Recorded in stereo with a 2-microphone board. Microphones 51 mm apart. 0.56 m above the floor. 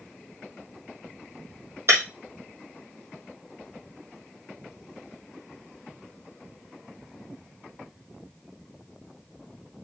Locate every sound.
1.9 s breaking glass: 60° right (ahead or behind), 4.5 m